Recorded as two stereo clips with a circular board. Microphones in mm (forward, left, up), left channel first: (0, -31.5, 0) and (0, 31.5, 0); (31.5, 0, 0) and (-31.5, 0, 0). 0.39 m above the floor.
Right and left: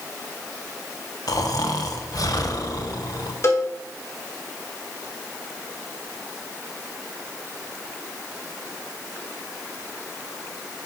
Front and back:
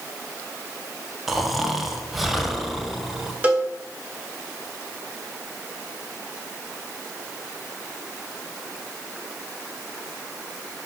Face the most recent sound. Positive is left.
turn(degrees=-115)